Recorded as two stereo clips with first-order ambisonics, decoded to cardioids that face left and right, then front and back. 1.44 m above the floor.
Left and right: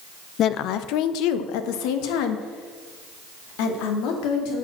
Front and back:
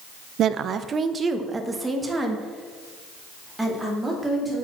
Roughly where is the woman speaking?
Behind left.